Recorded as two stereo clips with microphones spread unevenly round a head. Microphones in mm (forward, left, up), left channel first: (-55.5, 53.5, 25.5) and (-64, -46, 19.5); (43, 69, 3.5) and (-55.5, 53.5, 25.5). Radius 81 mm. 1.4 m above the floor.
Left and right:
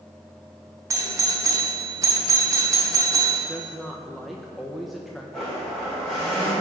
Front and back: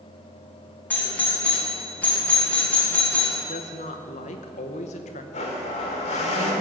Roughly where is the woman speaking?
Ahead.